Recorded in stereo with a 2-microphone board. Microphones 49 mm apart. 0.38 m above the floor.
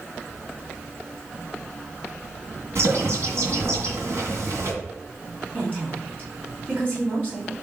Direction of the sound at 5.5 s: 40° right (ahead or behind).